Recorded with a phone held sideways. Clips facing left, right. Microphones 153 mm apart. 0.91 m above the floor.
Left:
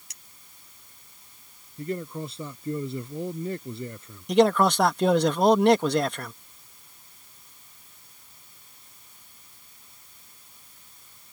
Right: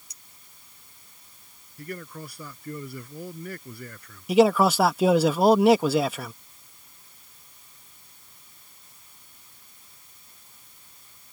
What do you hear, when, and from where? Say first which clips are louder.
0.1 s a clink: left 1 dB; 85° left
1.8 s a man speaking: left 6 dB; 25° left (ahead or behind)
4.3 s a man speaking: right 1 dB; 5° right (ahead or behind)